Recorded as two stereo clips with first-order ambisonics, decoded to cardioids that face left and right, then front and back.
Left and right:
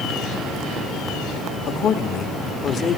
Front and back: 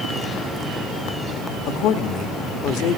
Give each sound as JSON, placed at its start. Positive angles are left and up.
{"t": 1.7, "sound": "a man speaking", "azimuth_deg": 30, "distance_m": 1.2}